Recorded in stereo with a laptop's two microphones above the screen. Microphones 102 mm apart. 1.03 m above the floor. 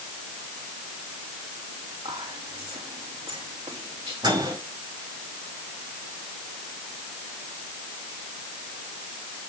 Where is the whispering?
75° right (ahead or behind), 2.5 m.